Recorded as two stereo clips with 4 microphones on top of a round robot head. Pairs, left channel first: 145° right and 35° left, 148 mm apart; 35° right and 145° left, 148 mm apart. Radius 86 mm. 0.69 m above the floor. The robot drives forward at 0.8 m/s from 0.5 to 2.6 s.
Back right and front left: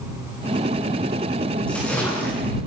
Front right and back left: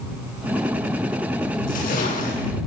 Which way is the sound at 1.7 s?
65° right.